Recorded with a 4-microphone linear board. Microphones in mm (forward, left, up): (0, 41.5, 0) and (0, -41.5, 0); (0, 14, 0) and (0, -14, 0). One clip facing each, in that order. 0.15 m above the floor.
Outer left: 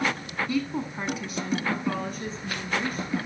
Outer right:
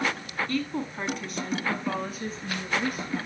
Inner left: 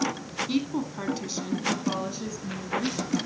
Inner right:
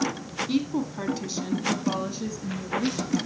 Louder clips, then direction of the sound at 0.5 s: Outer left 2 dB, inner right 2 dB; 10° left (ahead or behind).